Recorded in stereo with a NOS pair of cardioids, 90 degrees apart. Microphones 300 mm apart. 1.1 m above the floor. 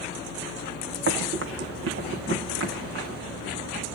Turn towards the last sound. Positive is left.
turn(degrees=-45)